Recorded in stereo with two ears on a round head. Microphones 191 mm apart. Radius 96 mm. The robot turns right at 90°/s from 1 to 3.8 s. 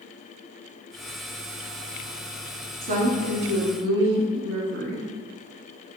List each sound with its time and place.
2.8 s a woman speaking: 150° right, 2.0 m; by 5.1 s 60° right, 2.0 m